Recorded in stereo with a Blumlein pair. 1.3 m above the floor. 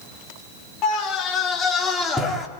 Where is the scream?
35° left, 3.5 m; by 2.5 s 5° left, 3 m.